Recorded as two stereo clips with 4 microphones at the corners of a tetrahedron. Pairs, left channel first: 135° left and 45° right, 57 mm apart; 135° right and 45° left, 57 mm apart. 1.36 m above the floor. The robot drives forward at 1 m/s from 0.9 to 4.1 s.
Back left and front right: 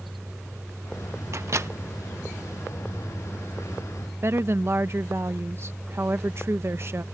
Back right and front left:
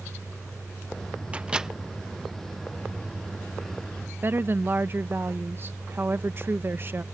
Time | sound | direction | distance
1.3 | a microwave | 20° right | ?
4.2 | a woman speaking | 5° right | ?